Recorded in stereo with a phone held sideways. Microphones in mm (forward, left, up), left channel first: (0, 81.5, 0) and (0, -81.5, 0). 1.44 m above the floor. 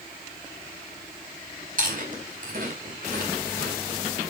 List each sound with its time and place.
1.8 s chewing: 60° right (ahead or behind), 4.5 m